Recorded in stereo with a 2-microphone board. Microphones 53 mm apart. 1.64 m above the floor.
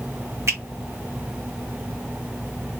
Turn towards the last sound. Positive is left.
turn(degrees=-70)  # may be behind; listen again after turning